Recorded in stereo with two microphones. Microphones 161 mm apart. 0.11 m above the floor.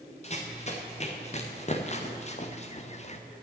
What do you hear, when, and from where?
0.2 s running footsteps: 40° left (ahead or behind), 2.5 m; by 3.2 s 45° left (ahead or behind), 1.2 m